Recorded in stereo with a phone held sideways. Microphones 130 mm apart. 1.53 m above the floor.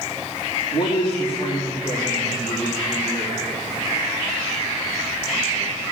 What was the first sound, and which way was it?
A man speaking, 45° left (ahead or behind).